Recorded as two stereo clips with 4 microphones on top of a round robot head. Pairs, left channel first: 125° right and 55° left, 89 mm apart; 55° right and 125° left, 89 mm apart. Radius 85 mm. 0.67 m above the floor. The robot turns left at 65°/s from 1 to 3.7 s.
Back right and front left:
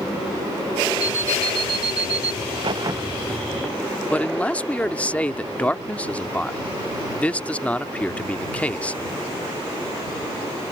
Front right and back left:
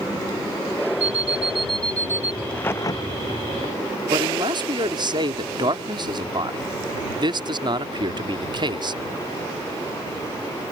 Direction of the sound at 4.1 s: 160° left.